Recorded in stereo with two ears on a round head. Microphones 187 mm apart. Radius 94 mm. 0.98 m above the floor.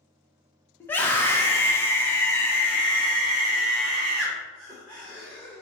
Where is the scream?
10° left (ahead or behind), 1.1 m; by 5.6 s centre (ahead or behind), 1.9 m.